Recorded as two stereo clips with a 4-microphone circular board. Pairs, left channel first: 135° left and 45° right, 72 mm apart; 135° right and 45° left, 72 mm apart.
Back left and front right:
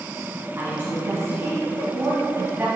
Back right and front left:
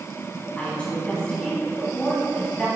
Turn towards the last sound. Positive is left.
turn(degrees=-80)